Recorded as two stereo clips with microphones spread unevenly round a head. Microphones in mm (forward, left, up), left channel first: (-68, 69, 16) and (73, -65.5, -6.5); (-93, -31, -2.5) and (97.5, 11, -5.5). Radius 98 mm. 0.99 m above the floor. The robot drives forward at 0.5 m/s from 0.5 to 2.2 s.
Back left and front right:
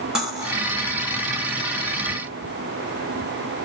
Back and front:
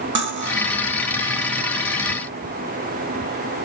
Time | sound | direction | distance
0.1 | cutlery clinking | 45° left | 0.9 m